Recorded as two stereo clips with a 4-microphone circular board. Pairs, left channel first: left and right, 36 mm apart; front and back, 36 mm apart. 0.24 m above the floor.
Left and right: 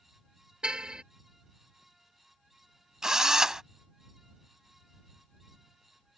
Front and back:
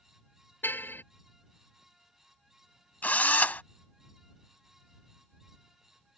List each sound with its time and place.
0.6 s a car horn: 25° right
3.0 s a drill: 20° right